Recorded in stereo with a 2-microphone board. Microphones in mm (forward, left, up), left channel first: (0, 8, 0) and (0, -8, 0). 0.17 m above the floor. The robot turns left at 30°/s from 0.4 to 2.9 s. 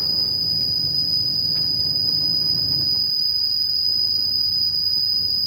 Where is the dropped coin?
No dropped coin in this recording.